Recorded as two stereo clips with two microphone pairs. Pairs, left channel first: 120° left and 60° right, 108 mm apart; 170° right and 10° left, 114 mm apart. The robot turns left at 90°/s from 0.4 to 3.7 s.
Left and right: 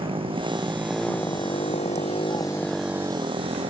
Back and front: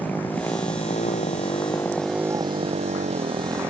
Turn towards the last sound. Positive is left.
turn(degrees=-60)